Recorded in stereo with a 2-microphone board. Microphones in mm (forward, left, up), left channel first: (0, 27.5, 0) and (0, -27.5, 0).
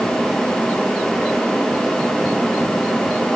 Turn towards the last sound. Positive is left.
No sound to turn to.